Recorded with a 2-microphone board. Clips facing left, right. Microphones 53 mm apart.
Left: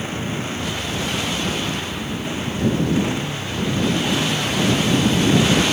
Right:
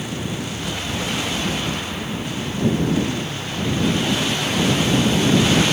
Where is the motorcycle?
30° left (ahead or behind); by 5.7 s 20° left (ahead or behind).